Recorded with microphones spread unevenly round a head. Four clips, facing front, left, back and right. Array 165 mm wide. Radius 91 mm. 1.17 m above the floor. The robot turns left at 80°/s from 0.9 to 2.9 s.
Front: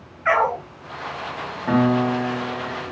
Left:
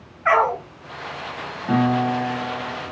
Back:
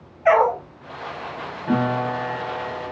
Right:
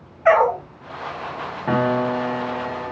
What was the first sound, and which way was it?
A dog barking, 150° right.